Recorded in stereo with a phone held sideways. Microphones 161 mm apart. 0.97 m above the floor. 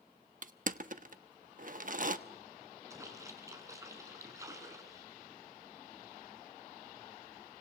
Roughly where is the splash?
Centre.